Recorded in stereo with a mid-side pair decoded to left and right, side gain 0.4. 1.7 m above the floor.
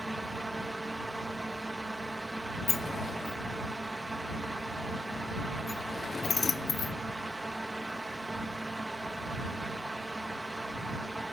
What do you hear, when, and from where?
0.0 s a fan: 15° right
2.7 s a sliding door: 35° left